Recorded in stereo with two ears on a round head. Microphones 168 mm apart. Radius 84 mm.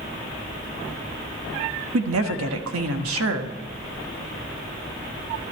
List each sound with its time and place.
1.9 s a woman speaking: 85° right, 1.4 m